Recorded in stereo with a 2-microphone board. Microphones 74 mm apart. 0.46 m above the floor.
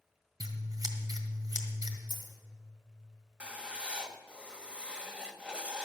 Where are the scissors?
55° right (ahead or behind), 1.7 m.